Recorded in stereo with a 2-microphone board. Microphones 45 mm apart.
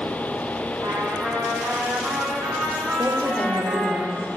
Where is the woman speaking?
20° right (ahead or behind), 7.5 m.